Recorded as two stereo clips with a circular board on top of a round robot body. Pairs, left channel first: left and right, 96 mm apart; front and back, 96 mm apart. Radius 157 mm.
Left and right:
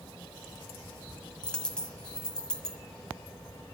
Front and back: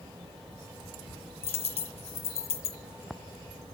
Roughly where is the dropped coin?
Ahead.